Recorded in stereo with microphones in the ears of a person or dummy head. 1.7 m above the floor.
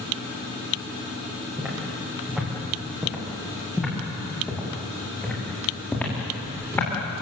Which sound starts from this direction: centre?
Footsteps, at 1.6 s.